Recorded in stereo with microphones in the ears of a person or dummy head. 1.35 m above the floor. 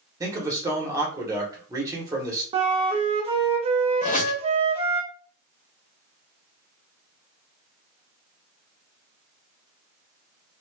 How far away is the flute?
About 0.5 m.